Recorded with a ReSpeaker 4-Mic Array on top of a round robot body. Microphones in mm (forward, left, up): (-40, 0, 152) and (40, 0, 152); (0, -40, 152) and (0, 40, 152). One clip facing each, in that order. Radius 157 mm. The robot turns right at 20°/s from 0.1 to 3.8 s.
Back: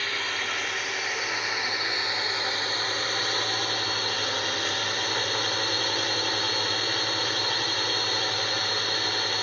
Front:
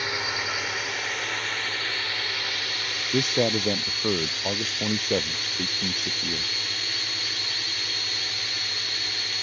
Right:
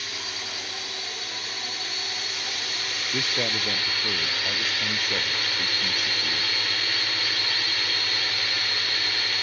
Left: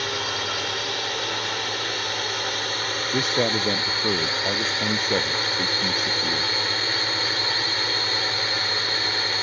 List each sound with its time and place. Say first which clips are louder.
0.0 s a drone: front 1 dB, left 9 dB; 75° left; by 9.4 s 150° left
3.1 s a man speaking: front 6 dB, left 6 dB; 20° left; by 6.5 s 30° left